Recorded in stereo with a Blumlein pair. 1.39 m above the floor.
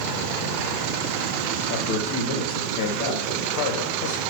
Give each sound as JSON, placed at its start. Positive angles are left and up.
{"t": 1.7, "sound": "a man speaking", "azimuth_deg": 45, "distance_m": 2.0}